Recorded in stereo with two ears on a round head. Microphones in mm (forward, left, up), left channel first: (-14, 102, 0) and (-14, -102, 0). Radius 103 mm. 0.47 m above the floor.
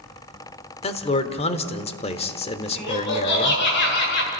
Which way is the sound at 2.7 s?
55° left (ahead or behind).